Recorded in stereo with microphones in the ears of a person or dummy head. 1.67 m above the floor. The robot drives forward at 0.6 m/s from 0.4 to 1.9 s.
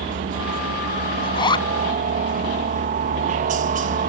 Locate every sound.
0.0 s a helicopter: 45° right (ahead or behind)
1.2 s a zipper: 25° left (ahead or behind)